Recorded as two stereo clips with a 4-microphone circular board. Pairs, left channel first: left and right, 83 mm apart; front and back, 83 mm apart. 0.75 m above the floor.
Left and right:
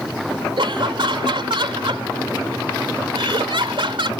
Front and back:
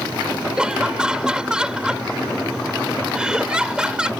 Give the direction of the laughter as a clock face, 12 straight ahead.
3 o'clock.